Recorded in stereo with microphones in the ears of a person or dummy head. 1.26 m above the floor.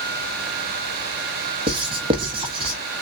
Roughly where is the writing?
Right.